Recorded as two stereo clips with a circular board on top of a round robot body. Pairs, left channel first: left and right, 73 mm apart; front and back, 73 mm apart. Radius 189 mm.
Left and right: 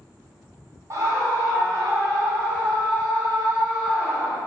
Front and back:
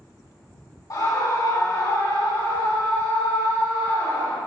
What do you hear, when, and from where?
0.9 s a scream: 40° right, 3.5 m; by 4.4 s 15° right, 5 m